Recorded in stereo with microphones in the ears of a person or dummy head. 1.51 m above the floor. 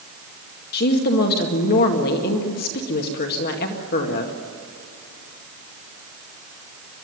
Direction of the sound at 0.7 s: 50° left (ahead or behind).